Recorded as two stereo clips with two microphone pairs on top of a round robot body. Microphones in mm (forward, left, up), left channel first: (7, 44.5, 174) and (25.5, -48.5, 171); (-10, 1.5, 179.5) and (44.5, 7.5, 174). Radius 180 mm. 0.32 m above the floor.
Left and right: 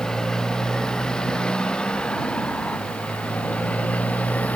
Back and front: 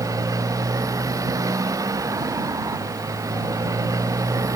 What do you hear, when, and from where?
0.0 s a motorcycle: 20° left; by 4.6 s 25° left